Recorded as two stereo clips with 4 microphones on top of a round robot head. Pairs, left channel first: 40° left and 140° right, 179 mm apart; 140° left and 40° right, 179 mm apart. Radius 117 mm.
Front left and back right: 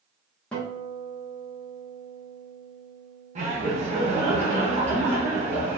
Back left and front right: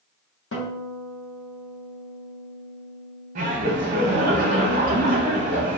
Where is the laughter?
85° right, 0.7 m.